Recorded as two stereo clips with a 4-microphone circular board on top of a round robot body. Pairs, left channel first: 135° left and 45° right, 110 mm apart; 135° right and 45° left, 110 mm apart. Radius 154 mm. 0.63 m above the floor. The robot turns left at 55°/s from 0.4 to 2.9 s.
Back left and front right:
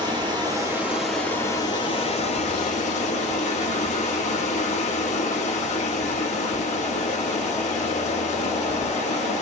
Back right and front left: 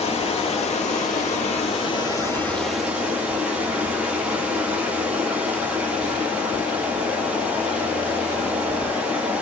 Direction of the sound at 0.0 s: 100° right.